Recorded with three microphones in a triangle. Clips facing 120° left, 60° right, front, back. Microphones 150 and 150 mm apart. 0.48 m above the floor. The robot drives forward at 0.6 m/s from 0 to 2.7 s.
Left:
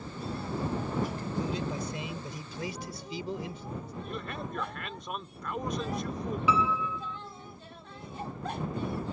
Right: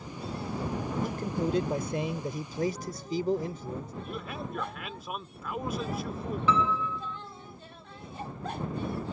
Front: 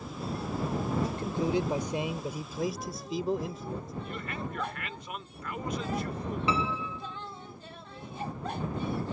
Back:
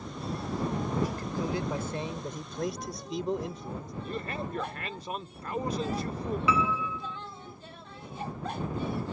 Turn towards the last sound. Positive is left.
turn(degrees=45)